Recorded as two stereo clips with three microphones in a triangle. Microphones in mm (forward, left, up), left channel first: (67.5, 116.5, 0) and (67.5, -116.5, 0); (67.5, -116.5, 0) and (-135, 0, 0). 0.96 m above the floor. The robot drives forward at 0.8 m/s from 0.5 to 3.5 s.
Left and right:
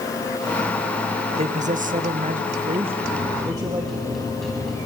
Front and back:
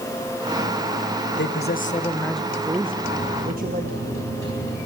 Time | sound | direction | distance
1.4 | a man speaking | 35° right | 0.9 m
3.0 | a microwave | straight behind | 5 m